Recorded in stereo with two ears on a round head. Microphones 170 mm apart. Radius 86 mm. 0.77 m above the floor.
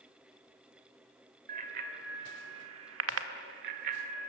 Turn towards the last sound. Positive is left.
turn(degrees=-45)  # may be behind; listen again after turning